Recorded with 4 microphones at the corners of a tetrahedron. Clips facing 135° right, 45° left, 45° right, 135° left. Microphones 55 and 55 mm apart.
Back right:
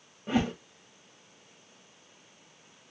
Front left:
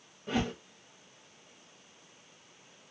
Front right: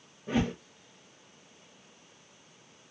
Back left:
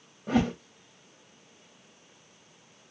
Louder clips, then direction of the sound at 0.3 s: Back right 4 dB, back left 4 dB; 155° left.